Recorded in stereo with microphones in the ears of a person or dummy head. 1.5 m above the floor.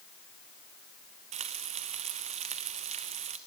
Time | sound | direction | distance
1.3 | frying | 35° right (ahead or behind) | 0.9 m